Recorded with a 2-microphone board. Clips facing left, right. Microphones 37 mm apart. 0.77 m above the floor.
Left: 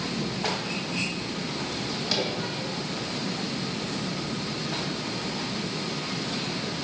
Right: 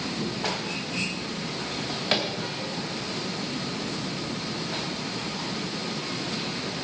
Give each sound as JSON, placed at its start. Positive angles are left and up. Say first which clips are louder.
{"t": 1.7, "sound": "a drawer", "louder": "right 3 dB", "side_deg": -45, "distance_m": 2.5}